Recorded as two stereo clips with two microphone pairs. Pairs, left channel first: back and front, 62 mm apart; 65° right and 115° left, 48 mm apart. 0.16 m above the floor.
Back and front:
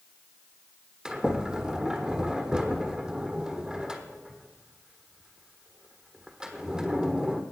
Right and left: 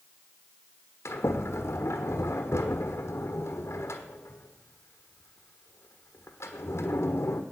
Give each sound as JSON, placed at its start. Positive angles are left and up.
{"t": 1.1, "sound": "a sliding door", "azimuth_deg": -80, "distance_m": 1.2}